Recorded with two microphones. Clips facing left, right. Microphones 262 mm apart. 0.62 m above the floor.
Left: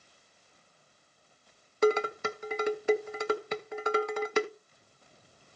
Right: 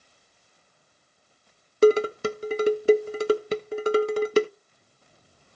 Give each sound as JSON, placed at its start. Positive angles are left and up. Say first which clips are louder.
{"t": 1.8, "sound": "dishes clattering", "louder": "right 8 dB", "side_deg": -35, "distance_m": 0.6}